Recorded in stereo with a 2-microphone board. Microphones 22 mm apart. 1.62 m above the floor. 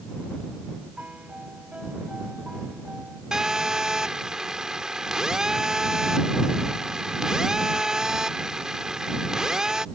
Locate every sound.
1.0 s a piano: 70° right (ahead or behind)
3.3 s a phone buzzing: 30° right (ahead or behind)